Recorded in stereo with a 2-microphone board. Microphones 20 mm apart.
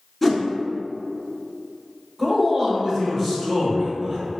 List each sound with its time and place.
0.2 s a whoosh: centre (ahead or behind), 0.8 m
2.2 s a man speaking: 10° right (ahead or behind), 1.1 m